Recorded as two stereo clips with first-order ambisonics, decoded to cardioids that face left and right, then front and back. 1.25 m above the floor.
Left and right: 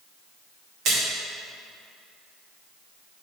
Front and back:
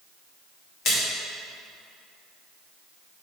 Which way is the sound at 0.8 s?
50° right.